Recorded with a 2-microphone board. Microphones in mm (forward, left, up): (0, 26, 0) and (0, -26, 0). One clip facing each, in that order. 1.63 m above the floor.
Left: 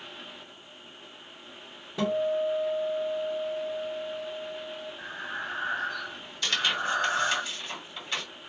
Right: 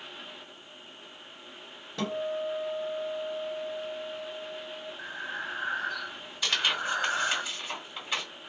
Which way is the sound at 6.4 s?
10° right (ahead or behind).